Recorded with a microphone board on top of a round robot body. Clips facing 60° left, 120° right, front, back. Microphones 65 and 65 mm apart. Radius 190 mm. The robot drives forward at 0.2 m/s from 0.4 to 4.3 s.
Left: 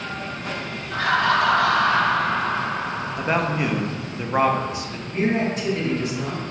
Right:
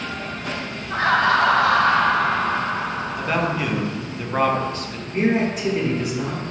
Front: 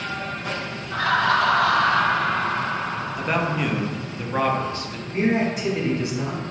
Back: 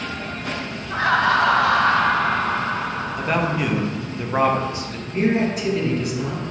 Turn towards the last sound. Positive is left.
turn(degrees=-60)